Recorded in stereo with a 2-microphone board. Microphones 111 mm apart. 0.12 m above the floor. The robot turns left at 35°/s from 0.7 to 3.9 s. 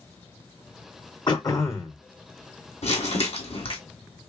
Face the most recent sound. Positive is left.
turn(degrees=50)